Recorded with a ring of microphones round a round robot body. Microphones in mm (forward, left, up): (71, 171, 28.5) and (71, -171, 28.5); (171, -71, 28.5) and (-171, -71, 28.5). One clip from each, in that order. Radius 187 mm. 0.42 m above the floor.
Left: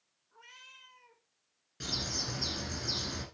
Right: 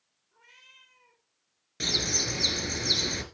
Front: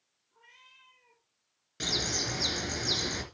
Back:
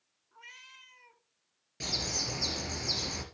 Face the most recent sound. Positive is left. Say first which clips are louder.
# right 8 dB, front 2 dB
turn(degrees=-50)